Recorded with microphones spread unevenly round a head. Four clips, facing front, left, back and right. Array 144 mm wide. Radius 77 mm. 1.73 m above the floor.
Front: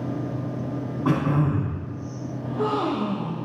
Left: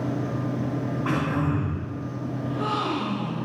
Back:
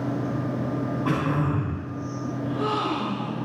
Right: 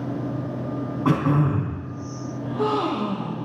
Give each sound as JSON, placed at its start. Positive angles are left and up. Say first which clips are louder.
{"t": 1.1, "sound": "throat clearing", "louder": "right 6 dB, front 4 dB", "azimuth_deg": -50, "distance_m": 4.5}
{"t": 2.4, "sound": "a gasp", "louder": "right 5 dB, front 2 dB", "azimuth_deg": -40, "distance_m": 2.0}